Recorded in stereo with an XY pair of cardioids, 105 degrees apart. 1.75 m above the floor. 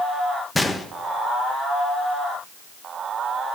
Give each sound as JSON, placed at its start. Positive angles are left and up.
{"t": 0.6, "sound": "a gunshot", "azimuth_deg": 15, "distance_m": 1.1}